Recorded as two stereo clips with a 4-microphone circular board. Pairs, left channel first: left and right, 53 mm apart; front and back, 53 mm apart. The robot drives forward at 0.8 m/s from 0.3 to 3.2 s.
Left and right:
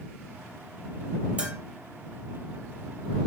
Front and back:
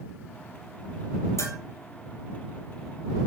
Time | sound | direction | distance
1.4 | a bell | 20° right | 3 m